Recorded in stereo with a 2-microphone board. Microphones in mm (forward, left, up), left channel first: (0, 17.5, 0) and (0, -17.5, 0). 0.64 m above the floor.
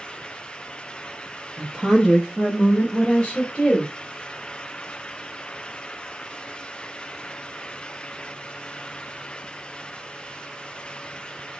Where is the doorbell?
I don't hear a doorbell.